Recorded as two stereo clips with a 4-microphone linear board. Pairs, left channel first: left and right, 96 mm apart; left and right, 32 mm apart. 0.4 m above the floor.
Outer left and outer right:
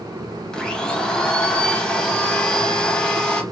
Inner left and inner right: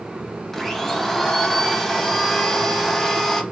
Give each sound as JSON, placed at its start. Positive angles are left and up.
{"t": 0.5, "sound": "a blender", "side_deg": 10, "distance_m": 0.5}